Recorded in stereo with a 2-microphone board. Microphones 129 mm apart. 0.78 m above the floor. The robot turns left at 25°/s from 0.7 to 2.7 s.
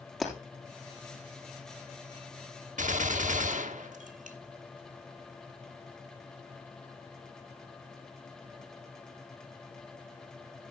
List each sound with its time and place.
0.2 s breaking glass: centre (ahead or behind), 3.5 m
2.8 s a gunshot: 75° right (ahead or behind), 1.0 m